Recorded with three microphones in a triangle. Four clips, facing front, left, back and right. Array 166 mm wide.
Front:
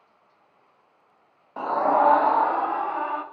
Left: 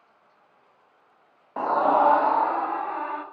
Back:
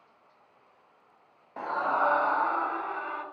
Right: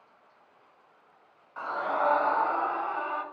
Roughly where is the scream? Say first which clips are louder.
Left 9 dB, front 7 dB; left.